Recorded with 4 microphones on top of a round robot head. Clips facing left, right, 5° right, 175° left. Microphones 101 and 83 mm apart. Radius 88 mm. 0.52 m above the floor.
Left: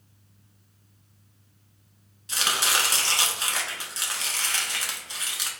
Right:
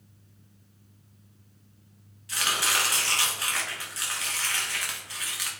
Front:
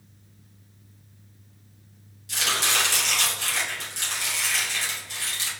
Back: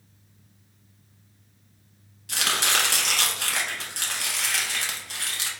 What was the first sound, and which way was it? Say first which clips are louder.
Chopping: left 1 dB, back 1 dB; 150° left.